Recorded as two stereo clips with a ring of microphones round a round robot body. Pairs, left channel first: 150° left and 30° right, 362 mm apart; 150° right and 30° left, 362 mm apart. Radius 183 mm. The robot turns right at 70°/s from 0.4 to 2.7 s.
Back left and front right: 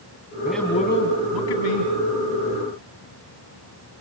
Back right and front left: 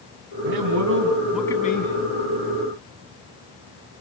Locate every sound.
0.5 s a man speaking: 55° left, 2.5 m; by 1.9 s 155° left, 2.5 m